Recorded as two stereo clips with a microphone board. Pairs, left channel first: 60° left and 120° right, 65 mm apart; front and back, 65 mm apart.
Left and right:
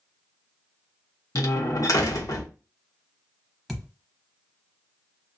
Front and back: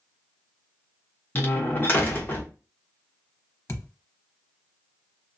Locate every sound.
1.4 s a door slam: 50° left, 0.8 m
3.7 s a thud: 30° right, 0.7 m